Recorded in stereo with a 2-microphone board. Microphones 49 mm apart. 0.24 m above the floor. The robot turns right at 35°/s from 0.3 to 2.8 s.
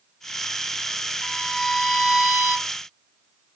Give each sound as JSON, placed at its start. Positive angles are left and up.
{"t": 1.2, "sound": "a violin", "azimuth_deg": 155, "distance_m": 1.6}